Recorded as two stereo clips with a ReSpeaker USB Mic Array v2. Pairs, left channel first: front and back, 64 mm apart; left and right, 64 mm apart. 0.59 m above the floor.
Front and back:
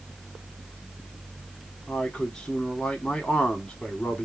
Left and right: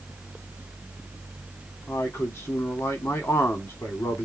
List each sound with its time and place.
1.9 s a man speaking: 75° left, 1.9 m